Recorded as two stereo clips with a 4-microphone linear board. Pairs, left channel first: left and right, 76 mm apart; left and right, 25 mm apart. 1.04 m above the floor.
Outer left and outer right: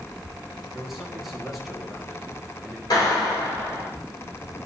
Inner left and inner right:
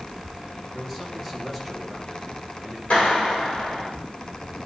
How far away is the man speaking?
About 1.8 m.